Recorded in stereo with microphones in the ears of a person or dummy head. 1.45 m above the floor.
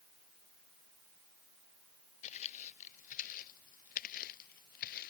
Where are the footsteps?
40° left (ahead or behind); by 5.1 s 50° left (ahead or behind).